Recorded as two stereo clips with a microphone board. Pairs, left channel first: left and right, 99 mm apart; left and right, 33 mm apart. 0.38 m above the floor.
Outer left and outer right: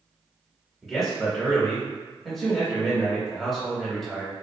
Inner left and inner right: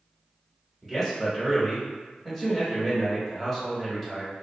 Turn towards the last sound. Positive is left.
turn(degrees=0)  # may be behind; listen again after turning